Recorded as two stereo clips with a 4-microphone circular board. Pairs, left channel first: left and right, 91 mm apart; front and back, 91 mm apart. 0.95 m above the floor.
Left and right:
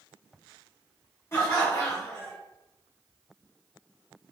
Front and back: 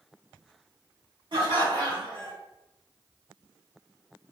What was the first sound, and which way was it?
Laughter, 150° left.